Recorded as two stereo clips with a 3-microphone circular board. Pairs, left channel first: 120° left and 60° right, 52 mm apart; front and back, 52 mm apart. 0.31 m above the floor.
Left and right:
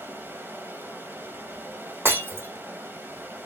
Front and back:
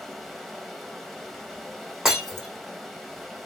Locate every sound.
0.0 s running water: 85° right, 1.0 m
2.0 s breaking glass: 100° right, 3 m